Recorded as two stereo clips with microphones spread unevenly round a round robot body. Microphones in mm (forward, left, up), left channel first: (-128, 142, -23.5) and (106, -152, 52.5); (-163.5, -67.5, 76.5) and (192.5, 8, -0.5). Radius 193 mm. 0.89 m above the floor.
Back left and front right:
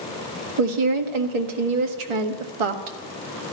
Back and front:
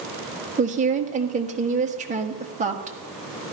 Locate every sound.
0.6 s a woman speaking: 55° right, 1.6 m